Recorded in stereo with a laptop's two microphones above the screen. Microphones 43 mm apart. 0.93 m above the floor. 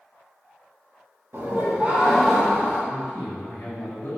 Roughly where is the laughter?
Right.